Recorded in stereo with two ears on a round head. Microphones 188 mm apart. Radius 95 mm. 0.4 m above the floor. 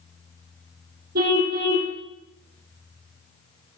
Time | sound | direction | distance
1.1 | a car horn | 50° right (ahead or behind) | 6 m